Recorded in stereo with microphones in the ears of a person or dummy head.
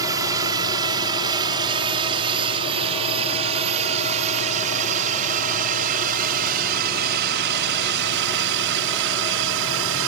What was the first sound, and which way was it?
A drone, 15° right (ahead or behind).